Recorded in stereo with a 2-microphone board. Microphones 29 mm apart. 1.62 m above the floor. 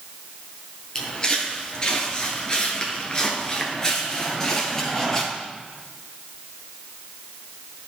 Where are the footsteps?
20° left (ahead or behind), 2 m; by 5.2 s 15° left (ahead or behind), 2.5 m.